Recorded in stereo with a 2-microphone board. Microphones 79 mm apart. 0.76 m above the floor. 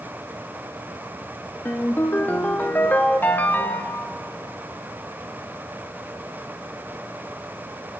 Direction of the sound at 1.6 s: 25° left (ahead or behind).